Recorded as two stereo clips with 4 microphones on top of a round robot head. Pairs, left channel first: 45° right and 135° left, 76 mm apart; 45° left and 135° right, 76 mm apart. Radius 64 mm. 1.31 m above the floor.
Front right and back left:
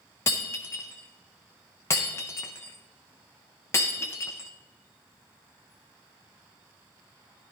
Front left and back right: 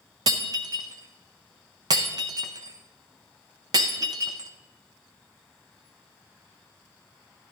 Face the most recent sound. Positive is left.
turn(degrees=-100)